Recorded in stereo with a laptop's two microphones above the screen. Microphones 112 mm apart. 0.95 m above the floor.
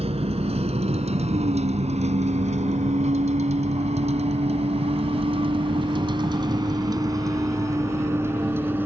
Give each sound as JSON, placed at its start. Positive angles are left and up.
{"t": 0.0, "sound": "a vehicle", "side_deg": -60}